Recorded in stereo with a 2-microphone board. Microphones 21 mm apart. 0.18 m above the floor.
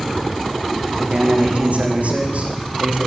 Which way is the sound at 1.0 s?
75° right (ahead or behind).